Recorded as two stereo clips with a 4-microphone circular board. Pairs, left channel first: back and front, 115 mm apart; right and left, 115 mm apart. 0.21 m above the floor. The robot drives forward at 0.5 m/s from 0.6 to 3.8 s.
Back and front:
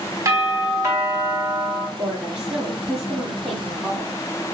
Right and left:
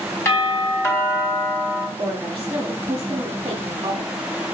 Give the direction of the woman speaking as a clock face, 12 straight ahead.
9 o'clock.